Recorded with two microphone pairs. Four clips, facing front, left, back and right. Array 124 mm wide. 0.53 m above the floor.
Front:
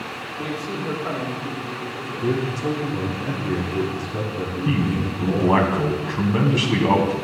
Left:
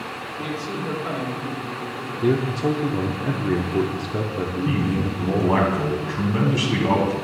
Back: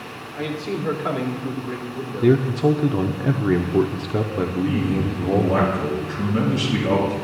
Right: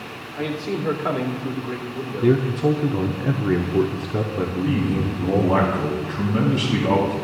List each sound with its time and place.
0.4 s a man speaking: 115° right, 1.9 m
2.2 s a man speaking: 170° left, 0.8 m
4.7 s a man speaking: straight ahead, 3.5 m